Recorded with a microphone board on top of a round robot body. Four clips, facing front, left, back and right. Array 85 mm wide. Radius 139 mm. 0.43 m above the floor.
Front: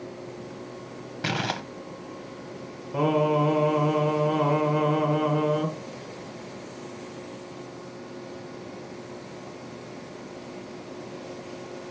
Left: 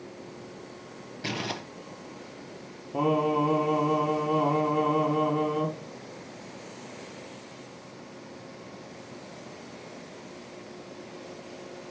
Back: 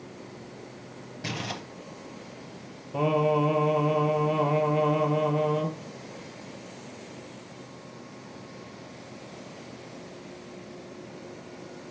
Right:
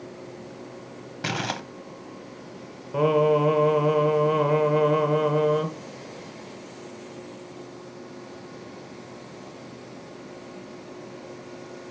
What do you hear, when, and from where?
1.2 s crumpling: 50° right, 0.7 m
2.9 s singing: 65° right, 2 m